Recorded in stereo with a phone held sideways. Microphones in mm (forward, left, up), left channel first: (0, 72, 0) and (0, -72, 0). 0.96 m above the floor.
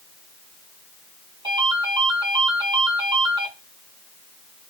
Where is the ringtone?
35° right (ahead or behind), 6 m.